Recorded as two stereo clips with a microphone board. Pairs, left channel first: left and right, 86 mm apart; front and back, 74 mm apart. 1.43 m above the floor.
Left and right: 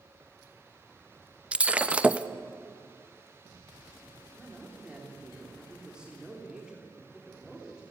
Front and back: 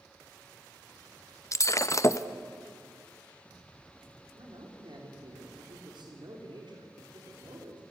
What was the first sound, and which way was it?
Breaking glass, 20° right.